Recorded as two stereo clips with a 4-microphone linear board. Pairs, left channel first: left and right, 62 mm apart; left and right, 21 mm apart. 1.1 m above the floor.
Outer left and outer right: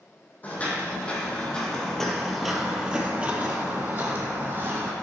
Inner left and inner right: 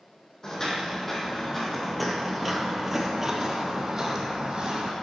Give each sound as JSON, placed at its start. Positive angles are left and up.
{"t": 0.4, "sound": "footsteps", "side_deg": 25, "distance_m": 2.0}